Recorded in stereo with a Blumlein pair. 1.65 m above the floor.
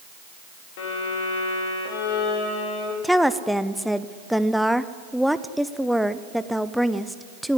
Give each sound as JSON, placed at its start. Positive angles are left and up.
{"t": 0.8, "sound": "a violin", "azimuth_deg": 50, "distance_m": 4.0}
{"t": 3.0, "sound": "a woman speaking", "azimuth_deg": 0, "distance_m": 0.7}